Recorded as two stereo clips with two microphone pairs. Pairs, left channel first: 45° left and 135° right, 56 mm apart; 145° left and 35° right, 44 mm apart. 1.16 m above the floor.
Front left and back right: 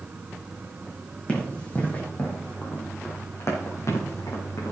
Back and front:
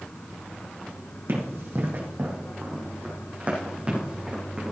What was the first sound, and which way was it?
Running footsteps, 25° right.